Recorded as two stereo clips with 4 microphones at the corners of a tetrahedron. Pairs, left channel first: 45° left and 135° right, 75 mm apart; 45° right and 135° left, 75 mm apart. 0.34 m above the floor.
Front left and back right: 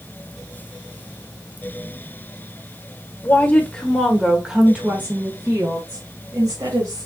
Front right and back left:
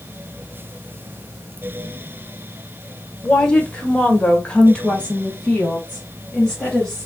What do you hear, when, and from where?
3.2 s a woman speaking: 20° left, 1.1 m; by 7.1 s 125° right, 1.9 m